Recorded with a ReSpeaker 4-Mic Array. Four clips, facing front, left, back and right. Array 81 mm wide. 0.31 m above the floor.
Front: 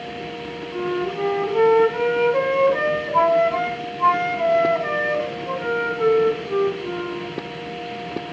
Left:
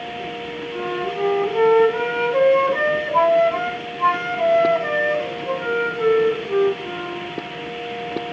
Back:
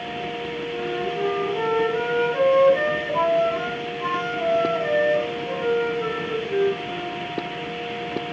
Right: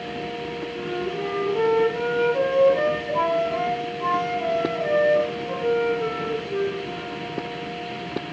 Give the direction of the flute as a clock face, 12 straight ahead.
10 o'clock.